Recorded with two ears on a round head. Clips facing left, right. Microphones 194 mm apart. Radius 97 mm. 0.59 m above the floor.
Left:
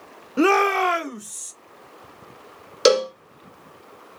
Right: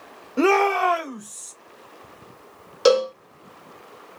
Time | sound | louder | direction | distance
0.4 | a shout | even | 5° left (ahead or behind) | 0.7 m
2.9 | a cowbell | even | 30° left (ahead or behind) | 0.8 m